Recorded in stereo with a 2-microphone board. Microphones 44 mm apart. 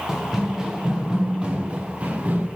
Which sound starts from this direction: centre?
Running footsteps, at 0.1 s.